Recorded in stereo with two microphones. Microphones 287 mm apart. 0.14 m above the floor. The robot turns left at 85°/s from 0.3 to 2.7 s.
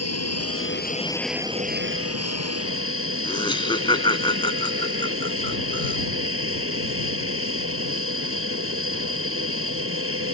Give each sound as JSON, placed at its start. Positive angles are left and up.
{"t": 0.0, "sound": "an aircraft", "azimuth_deg": 85}
{"t": 3.2, "sound": "laughter", "side_deg": 15}